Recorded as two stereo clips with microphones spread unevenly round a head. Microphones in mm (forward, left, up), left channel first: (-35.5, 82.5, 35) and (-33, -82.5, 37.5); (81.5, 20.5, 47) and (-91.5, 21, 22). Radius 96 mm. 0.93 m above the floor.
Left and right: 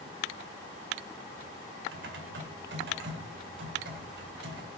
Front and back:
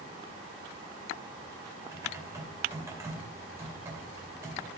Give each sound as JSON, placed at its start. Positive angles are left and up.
{"t": 1.9, "sound": "typing on a keyboard", "azimuth_deg": -105, "distance_m": 2.5}